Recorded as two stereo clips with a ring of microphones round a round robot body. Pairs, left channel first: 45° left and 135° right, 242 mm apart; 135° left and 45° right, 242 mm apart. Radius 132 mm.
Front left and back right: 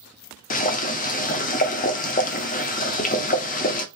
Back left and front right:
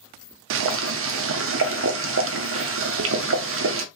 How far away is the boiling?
About 0.6 m.